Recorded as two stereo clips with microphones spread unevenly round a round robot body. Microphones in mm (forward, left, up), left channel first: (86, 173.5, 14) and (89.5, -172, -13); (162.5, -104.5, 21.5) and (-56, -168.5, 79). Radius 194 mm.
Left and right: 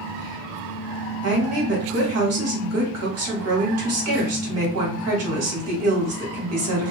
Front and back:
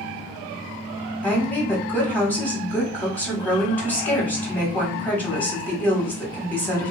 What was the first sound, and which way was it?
A woman speaking, 55° right.